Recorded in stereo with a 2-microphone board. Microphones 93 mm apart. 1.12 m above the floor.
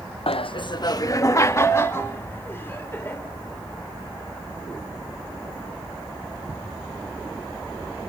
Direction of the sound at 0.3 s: 80° left.